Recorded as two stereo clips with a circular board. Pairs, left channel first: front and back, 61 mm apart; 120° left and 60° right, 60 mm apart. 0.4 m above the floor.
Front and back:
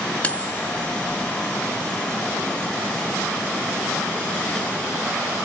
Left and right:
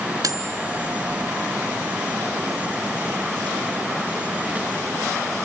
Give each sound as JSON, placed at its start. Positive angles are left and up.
{"t": 0.2, "sound": "cutlery clinking", "azimuth_deg": -65, "distance_m": 3.0}